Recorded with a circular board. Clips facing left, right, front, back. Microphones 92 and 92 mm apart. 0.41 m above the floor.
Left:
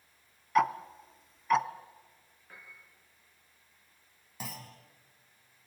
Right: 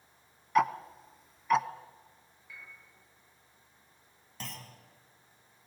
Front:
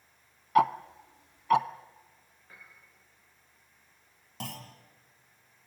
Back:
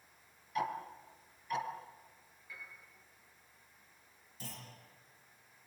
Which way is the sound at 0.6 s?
Straight ahead.